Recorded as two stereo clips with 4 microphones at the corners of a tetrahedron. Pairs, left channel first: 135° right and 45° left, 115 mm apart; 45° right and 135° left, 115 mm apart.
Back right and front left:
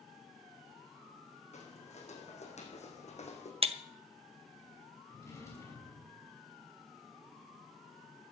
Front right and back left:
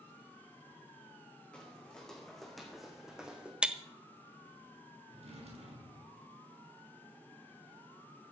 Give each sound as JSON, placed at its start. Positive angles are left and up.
{"t": 1.5, "sound": "footsteps", "azimuth_deg": -125, "distance_m": 4.0}
{"t": 3.6, "sound": "breaking glass", "azimuth_deg": 55, "distance_m": 1.0}
{"t": 5.1, "sound": "a drawer", "azimuth_deg": 160, "distance_m": 5.5}